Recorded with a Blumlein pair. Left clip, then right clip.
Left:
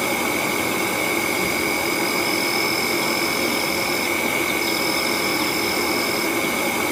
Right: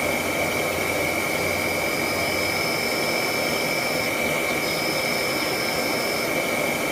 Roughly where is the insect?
Ahead left.